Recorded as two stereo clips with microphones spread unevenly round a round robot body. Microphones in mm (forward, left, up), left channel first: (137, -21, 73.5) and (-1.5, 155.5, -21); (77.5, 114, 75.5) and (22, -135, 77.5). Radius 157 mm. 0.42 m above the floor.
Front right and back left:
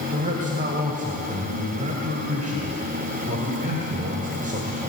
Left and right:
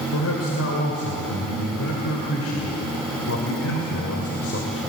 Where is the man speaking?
100° left, 2.5 m.